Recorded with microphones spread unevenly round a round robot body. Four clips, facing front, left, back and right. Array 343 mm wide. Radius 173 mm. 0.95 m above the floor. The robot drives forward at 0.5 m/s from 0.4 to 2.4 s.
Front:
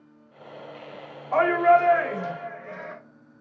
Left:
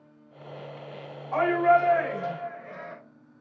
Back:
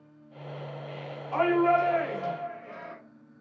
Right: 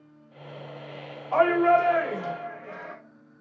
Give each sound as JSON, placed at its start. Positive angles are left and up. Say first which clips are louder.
{"t": 1.3, "sound": "a shout", "louder": "right 1 dB, front 5 dB", "azimuth_deg": -55, "distance_m": 3.5}